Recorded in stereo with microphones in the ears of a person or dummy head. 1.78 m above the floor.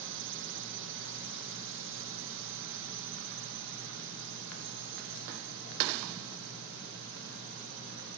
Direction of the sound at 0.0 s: 60° right (ahead or behind).